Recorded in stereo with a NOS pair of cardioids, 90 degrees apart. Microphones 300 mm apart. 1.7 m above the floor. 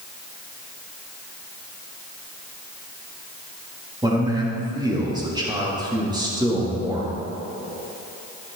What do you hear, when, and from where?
4.0 s a man speaking: 15° right, 3.5 m